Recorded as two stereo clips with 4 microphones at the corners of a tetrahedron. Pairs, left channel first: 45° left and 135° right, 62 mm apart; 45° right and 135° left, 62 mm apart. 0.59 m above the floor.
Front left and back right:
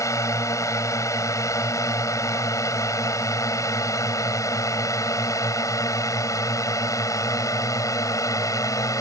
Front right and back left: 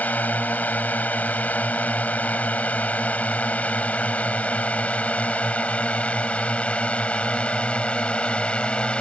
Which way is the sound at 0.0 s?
20° left.